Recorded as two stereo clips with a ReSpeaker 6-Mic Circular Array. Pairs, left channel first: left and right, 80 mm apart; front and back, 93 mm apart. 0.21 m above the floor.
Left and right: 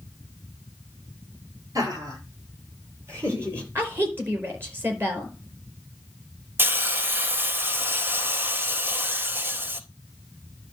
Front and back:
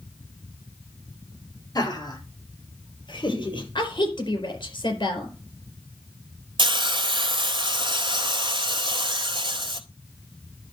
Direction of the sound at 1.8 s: 45° right.